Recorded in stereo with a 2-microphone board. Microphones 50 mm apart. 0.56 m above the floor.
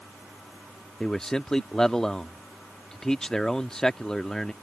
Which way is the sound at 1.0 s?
10° left (ahead or behind).